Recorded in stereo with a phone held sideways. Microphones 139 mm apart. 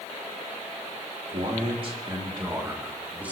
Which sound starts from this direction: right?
A man speaking, at 1.3 s.